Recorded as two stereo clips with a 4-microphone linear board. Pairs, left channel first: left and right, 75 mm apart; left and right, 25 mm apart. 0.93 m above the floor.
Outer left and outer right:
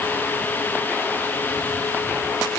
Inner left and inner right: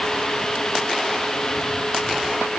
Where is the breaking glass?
No breaking glass in this recording.